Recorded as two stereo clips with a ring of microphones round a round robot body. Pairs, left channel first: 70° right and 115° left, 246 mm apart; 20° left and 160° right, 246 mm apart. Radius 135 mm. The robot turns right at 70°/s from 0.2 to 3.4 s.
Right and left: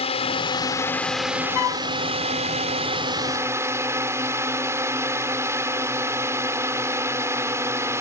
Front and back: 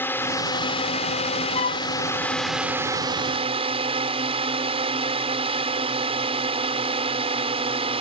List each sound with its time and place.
0.0 s a drone: 45° right; by 8.0 s 175° left
1.6 s a flute: 45° right; by 1.9 s 25° right